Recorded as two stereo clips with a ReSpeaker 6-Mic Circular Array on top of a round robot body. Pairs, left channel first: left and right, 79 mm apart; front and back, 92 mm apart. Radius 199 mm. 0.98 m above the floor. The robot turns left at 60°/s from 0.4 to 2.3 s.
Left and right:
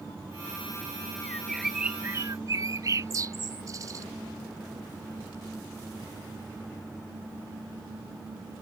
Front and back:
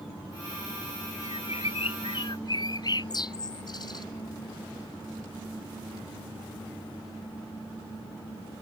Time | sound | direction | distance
1.2 | a bird | 20° left | ?